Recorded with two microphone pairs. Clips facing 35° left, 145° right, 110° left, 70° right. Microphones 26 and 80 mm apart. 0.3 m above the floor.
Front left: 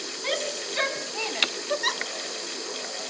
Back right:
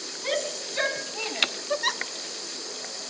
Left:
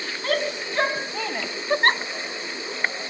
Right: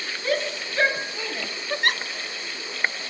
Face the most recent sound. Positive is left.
turn(degrees=120)